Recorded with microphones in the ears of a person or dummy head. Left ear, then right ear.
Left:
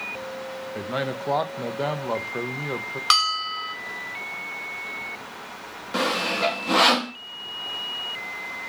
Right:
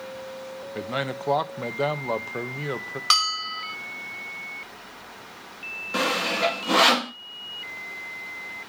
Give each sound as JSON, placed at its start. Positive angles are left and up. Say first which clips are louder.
{"t": 0.8, "sound": "a man speaking", "louder": "even", "side_deg": -15, "distance_m": 0.8}
{"t": 3.1, "sound": "a bell", "louder": "left 1 dB", "side_deg": 5, "distance_m": 0.7}
{"t": 5.9, "sound": "sawing", "louder": "left 1 dB", "side_deg": -5, "distance_m": 0.6}